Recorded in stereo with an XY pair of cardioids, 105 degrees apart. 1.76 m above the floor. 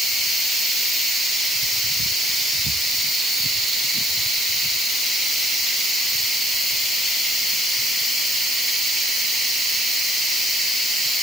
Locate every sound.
Only background noise.